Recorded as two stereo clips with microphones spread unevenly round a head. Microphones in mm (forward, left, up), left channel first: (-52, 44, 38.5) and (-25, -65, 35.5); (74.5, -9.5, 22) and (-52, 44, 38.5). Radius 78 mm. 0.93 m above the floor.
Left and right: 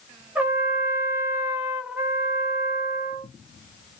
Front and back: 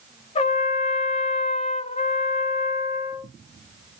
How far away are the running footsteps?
No running footsteps in this recording.